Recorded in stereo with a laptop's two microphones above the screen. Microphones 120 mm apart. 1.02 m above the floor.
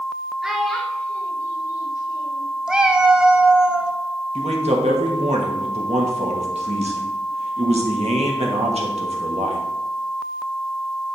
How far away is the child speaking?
About 1.6 m.